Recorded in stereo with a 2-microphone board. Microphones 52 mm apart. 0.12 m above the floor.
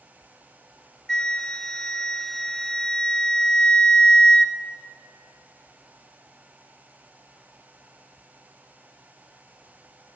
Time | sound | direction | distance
1.1 | a flute | 15° left (ahead or behind) | 0.7 m